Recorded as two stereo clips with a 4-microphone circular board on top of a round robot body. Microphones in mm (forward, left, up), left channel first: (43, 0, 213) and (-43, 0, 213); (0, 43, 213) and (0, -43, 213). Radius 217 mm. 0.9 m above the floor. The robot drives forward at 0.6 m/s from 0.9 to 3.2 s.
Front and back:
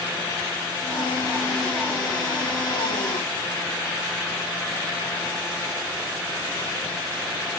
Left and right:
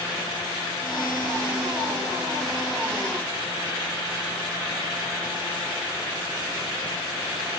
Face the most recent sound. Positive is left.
No sound to turn to.